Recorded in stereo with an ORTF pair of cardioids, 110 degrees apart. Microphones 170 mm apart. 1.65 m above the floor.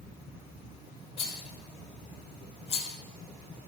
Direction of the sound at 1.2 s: 35° left.